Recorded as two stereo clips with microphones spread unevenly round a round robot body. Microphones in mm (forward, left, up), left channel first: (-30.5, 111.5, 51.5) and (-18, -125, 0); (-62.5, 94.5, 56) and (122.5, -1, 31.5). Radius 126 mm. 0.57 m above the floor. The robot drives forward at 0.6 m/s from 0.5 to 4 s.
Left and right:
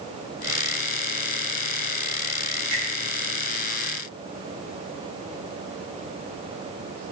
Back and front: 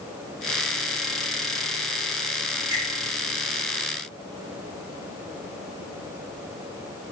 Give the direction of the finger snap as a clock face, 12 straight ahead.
1 o'clock.